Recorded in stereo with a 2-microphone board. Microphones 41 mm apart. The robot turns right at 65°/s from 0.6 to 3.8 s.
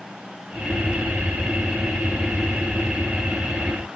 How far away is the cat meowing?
No cat meowing in this recording.